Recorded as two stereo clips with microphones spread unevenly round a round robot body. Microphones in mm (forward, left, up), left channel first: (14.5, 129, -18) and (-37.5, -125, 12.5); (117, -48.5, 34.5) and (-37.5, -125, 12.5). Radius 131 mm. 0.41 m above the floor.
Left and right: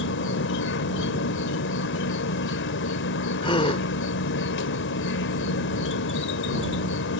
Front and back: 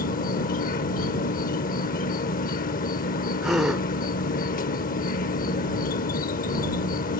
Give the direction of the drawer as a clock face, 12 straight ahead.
No drawer in this recording.